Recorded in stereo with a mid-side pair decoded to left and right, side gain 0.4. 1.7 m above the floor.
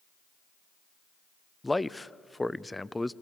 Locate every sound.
1.6 s a man speaking: 15° left, 0.6 m